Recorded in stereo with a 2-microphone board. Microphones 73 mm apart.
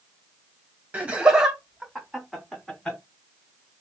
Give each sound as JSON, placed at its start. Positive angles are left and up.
{"t": 0.9, "sound": "laughter", "side_deg": -20, "distance_m": 1.5}